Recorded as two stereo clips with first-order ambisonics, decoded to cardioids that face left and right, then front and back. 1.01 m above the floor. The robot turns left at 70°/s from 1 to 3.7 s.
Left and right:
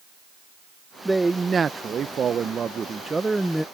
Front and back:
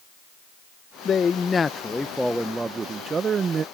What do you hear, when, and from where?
1.1 s a man speaking: 5° right; by 3.6 s 170° left